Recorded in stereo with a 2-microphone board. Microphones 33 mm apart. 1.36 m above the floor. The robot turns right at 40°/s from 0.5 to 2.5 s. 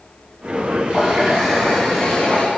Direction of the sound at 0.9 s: 30° right.